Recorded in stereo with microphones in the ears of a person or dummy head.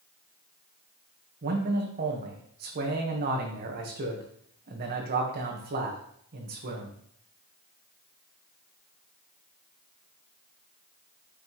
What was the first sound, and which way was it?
A man speaking, 45° right (ahead or behind).